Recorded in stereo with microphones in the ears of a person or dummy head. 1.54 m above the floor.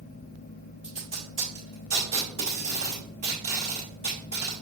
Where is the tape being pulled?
30° right (ahead or behind), 1.6 m.